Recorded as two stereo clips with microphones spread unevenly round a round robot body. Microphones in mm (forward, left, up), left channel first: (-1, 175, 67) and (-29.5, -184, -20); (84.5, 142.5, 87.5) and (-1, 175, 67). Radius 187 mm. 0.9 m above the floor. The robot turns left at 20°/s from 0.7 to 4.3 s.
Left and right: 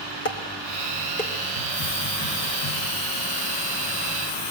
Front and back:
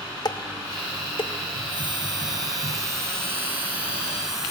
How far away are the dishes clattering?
About 2.5 m.